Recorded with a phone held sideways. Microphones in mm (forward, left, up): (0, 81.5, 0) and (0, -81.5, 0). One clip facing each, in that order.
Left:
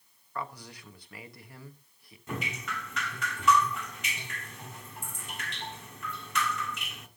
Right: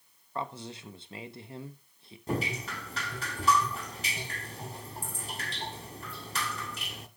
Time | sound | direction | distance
0.3 | a man speaking | 25° right (ahead or behind) | 1.0 m
2.3 | dripping | 35° right (ahead or behind) | 1.1 m